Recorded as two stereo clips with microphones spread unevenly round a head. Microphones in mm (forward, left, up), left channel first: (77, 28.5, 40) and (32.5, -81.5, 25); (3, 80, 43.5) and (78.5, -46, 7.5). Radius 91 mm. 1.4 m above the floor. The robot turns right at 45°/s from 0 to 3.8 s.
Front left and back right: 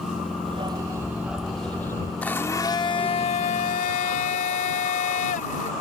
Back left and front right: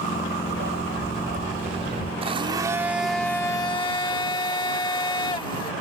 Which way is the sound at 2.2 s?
10° right.